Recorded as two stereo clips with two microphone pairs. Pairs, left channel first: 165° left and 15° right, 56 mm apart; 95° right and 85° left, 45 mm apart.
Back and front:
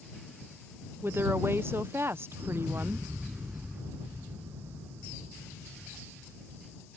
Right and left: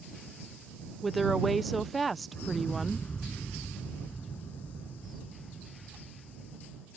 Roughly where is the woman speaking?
Ahead.